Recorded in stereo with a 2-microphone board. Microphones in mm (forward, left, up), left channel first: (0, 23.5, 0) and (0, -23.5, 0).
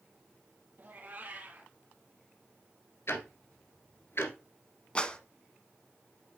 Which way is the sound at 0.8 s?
40° right (ahead or behind).